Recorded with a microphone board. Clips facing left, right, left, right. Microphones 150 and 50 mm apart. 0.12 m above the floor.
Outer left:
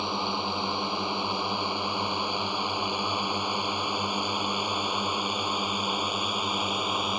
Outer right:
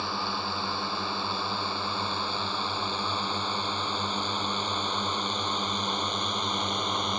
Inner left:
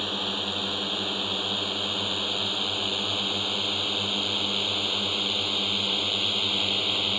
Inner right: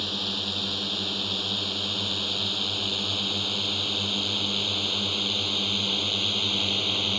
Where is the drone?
20° left (ahead or behind); by 7.2 s 5° left (ahead or behind).